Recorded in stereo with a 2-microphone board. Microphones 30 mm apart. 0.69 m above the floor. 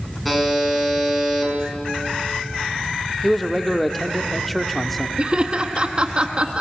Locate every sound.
0.2 s a buzzer: centre (ahead or behind), 5 m
3.2 s a man speaking: 5° left (ahead or behind), 1.2 m
5.2 s laughter: 30° right (ahead or behind), 1.1 m